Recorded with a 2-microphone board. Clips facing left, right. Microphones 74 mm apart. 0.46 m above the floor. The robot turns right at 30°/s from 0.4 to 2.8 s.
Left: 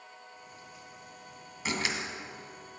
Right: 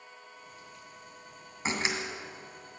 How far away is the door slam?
About 2 m.